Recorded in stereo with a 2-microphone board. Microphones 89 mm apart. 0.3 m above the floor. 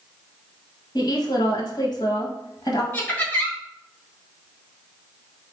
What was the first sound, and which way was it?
A woman speaking, 50° left (ahead or behind).